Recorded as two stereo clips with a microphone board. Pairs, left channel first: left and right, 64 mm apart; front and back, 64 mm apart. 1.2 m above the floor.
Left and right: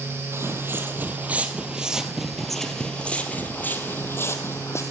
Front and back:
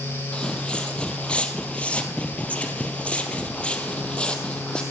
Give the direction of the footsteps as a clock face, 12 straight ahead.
2 o'clock.